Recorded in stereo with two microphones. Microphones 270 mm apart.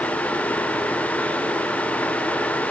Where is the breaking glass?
I don't hear breaking glass.